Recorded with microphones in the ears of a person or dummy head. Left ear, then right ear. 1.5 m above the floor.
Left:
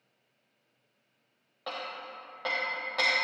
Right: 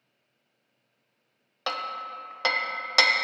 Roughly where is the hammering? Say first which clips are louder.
Right 7 dB; right.